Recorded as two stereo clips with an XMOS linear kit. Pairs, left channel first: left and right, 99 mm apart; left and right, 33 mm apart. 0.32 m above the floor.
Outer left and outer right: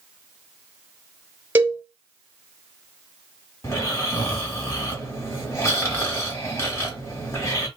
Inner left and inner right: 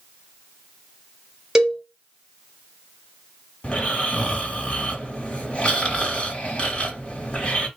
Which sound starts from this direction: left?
Snoring, at 3.6 s.